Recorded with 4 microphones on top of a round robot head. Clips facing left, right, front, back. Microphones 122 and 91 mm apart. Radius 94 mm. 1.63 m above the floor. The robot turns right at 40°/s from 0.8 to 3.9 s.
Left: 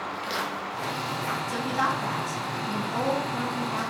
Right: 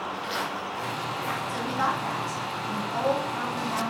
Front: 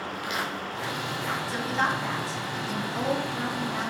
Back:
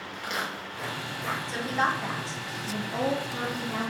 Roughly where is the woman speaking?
Left.